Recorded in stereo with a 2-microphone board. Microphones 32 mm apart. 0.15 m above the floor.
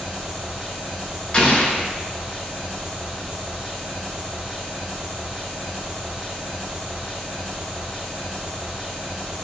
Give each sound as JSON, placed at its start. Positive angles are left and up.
{"t": 0.0, "sound": "an engine running", "side_deg": -5, "distance_m": 1.7}
{"t": 1.3, "sound": "an explosion", "side_deg": 35, "distance_m": 0.5}